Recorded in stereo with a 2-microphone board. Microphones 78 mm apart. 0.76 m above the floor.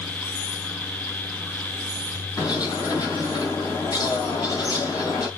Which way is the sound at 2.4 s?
50° left (ahead or behind).